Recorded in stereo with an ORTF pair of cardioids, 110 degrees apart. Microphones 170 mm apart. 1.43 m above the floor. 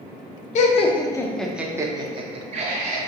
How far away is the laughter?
About 0.7 m.